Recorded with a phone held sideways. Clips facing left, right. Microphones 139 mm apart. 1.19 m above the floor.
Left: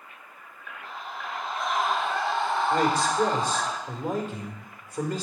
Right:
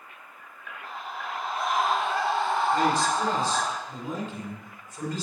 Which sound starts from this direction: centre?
A scream, at 0.8 s.